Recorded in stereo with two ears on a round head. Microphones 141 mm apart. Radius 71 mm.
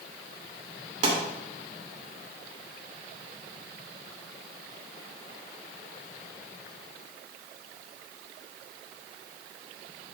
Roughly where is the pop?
Right.